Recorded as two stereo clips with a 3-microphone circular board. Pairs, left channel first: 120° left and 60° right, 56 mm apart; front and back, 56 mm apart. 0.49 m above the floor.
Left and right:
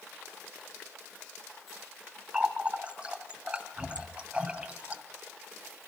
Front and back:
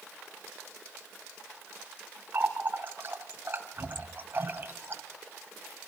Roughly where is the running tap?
Behind right.